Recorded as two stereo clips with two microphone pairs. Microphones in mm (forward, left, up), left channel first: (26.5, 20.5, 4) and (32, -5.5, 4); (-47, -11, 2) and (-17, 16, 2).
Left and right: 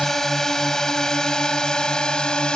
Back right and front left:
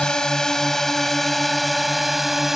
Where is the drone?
165° left; by 2.6 s 120° left.